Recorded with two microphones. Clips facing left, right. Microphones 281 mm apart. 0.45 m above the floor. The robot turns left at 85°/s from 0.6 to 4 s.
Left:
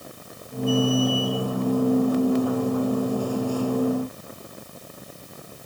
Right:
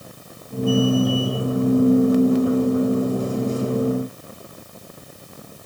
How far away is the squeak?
No squeak in this recording.